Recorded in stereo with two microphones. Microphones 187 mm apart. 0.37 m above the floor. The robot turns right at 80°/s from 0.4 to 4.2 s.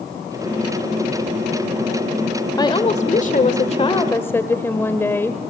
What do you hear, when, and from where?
2.6 s a woman speaking: 30° left, 1.3 m; by 5.4 s 160° left, 1.3 m